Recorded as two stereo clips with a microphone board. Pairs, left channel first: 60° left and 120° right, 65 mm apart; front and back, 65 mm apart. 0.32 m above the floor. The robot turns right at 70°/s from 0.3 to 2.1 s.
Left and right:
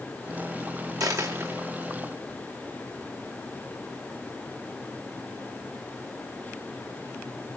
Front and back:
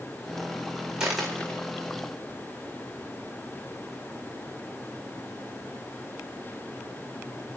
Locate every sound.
1.0 s a dropped coin: 105° right, 4 m; by 1.6 s 60° right, 4 m